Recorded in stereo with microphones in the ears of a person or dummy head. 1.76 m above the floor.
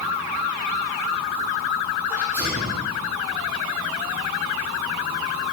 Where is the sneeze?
15° right (ahead or behind), 3 m.